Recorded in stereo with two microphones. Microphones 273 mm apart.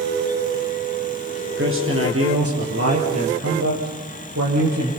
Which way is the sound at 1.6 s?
45° right (ahead or behind).